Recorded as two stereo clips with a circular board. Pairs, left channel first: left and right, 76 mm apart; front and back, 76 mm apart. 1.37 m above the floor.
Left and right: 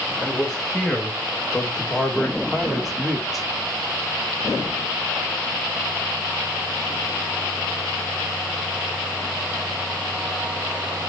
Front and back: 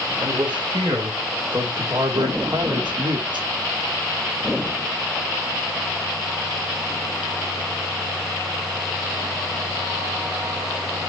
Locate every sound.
0.2 s a man speaking: 175° right, 4 m